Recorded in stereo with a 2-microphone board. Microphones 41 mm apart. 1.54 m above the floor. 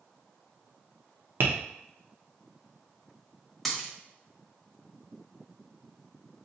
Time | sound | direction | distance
1.4 | tapping | 60° right (ahead or behind) | 0.7 m
3.6 | a dropped coin | centre (ahead or behind) | 1.1 m